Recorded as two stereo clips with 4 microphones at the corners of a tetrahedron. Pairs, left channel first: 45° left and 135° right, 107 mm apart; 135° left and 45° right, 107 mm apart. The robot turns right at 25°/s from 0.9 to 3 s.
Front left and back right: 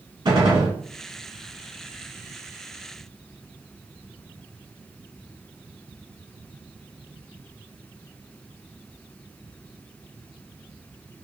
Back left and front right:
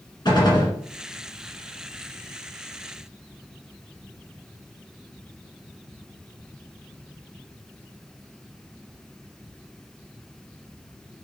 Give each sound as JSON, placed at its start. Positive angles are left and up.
{"t": 0.2, "sound": "a gunshot", "azimuth_deg": -175, "distance_m": 1.5}